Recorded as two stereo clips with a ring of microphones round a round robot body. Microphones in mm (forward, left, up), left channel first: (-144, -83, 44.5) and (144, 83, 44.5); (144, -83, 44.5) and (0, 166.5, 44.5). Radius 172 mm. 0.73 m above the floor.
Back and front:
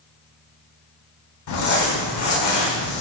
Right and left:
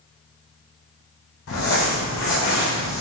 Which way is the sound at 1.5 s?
110° right.